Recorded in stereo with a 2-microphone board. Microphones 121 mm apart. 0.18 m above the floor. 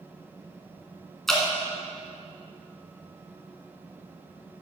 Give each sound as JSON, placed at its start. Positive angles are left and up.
{"t": 1.3, "sound": "dripping", "side_deg": 5, "distance_m": 1.9}